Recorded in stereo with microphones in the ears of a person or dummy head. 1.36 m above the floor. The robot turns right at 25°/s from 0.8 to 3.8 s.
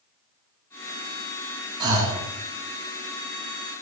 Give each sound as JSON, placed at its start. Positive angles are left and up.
{"t": 1.8, "sound": "breathing", "side_deg": -20, "distance_m": 0.6}